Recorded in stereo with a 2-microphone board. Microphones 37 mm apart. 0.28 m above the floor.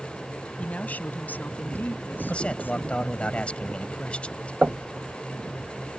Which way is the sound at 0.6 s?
40° left (ahead or behind).